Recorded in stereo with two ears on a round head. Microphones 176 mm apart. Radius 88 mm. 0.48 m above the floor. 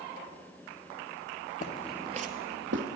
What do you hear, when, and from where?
1.6 s footsteps: 40° left (ahead or behind), 0.6 m; by 2.9 s 65° right (ahead or behind), 1.3 m